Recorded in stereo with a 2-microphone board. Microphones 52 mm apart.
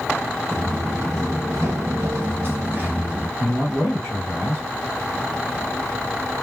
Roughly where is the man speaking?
Right.